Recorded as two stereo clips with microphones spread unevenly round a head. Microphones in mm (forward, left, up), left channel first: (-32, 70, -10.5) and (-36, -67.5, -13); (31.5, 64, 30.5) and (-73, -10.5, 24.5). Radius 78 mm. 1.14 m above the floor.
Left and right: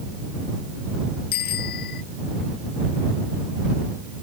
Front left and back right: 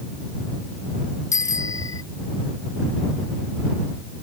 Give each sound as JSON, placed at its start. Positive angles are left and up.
{"t": 1.3, "sound": "a bicycle bell", "azimuth_deg": 100}